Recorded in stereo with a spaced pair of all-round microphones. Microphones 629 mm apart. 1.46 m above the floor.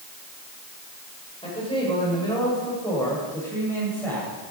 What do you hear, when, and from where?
1.4 s a man speaking: 10° left (ahead or behind), 7 m; by 4.3 s centre (ahead or behind), 8.5 m